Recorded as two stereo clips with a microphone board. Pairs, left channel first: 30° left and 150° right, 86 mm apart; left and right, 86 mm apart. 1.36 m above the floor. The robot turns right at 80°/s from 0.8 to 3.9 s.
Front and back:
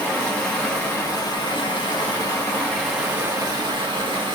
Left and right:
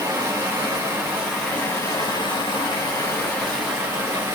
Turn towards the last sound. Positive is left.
turn(degrees=-155)